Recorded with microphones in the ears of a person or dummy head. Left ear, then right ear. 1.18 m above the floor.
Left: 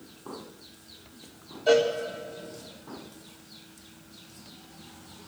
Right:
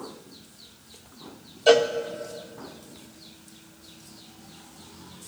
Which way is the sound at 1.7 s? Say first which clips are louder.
Right 3 dB; 25° right (ahead or behind).